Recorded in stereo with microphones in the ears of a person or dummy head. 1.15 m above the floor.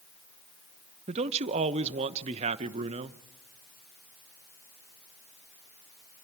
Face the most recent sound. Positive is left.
turn(degrees=-30)  # may be behind; listen again after turning